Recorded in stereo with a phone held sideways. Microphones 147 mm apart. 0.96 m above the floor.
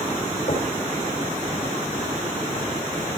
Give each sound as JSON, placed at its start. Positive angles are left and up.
{"t": 0.5, "sound": "knocking", "side_deg": 55, "distance_m": 5.5}